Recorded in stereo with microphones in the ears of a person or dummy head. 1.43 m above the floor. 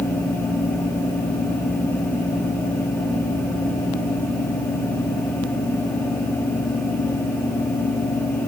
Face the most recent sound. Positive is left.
No sound to turn to.